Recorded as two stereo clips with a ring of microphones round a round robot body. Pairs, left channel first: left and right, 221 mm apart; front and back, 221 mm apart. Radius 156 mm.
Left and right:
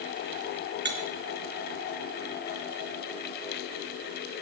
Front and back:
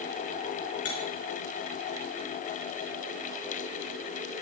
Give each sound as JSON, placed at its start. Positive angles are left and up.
{"t": 0.8, "sound": "cutlery clinking", "azimuth_deg": -50, "distance_m": 3.5}